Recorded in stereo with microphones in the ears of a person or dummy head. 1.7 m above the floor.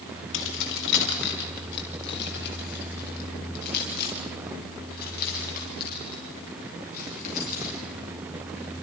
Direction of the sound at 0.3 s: 75° left (ahead or behind).